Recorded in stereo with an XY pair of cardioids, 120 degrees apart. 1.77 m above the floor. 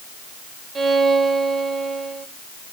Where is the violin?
35° right, 1.6 m.